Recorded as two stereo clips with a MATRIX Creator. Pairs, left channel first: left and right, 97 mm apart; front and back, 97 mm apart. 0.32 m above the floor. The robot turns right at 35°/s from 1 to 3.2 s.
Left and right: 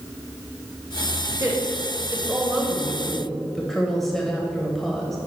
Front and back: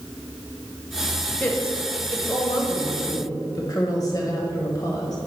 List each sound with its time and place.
1.4 s a woman speaking: 60° right, 1.1 m; by 5.2 s straight ahead, 1.1 m